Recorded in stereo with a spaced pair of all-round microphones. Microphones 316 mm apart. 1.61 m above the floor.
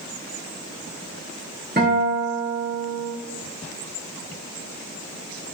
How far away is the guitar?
About 1.3 m.